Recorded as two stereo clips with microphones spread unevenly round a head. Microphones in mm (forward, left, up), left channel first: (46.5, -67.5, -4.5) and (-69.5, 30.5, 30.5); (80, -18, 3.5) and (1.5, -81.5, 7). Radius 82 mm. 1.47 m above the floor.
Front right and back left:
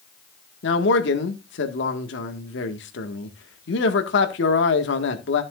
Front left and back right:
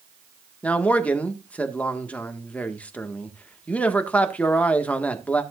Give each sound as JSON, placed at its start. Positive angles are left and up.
{"t": 0.6, "sound": "a man speaking", "azimuth_deg": -35, "distance_m": 1.6}